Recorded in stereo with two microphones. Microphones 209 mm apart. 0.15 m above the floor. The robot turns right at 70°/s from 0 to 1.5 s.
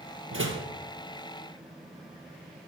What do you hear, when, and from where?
0.3 s a door slam: 75° right (ahead or behind), 3 m; by 0.7 s 60° right (ahead or behind), 3 m